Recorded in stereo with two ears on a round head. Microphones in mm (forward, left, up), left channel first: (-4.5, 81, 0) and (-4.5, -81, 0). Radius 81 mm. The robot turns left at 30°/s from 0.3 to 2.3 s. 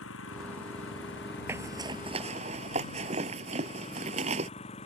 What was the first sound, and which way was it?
An engine running, 95° left.